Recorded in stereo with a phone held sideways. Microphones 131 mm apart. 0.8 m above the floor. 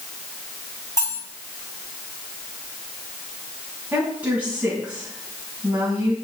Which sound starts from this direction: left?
Cutlery clinking, at 1.0 s.